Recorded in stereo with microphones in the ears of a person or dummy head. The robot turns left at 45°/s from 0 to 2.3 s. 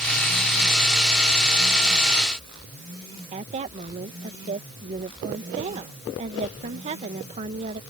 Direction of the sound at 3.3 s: 40° right (ahead or behind).